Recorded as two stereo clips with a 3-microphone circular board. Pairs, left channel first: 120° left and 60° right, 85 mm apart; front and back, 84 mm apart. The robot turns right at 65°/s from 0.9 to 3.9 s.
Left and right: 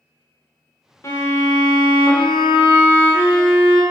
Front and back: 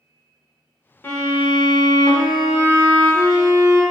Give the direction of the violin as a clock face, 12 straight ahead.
10 o'clock.